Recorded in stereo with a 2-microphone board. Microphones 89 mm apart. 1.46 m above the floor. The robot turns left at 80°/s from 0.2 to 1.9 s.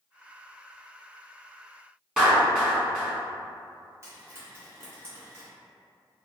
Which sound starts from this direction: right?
Frying, at 4.0 s.